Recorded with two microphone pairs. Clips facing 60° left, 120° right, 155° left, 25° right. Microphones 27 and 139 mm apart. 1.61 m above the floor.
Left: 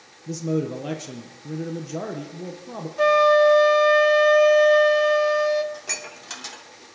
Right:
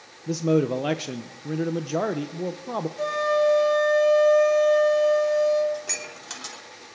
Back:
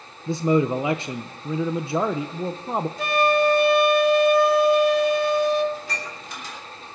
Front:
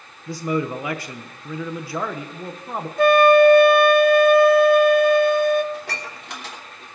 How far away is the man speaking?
About 0.7 m.